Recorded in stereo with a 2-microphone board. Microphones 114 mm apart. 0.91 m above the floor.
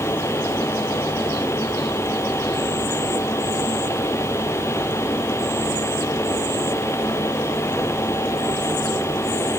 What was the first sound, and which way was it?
Only background noise.